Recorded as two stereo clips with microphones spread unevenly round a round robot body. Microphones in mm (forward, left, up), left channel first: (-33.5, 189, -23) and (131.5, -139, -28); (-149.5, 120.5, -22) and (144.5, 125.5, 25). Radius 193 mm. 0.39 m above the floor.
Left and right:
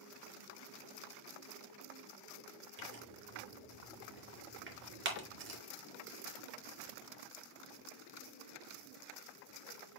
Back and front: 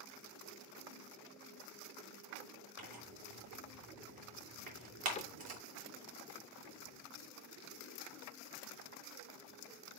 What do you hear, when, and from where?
2.8 s tearing paper: 5° right, 3 m
5.2 s a cupboard door: 145° left, 0.6 m